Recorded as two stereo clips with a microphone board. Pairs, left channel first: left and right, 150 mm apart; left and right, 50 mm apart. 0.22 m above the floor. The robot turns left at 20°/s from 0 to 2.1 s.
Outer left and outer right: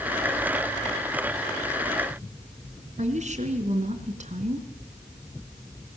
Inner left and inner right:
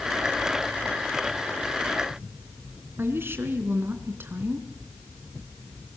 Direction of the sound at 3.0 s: 50° right (ahead or behind).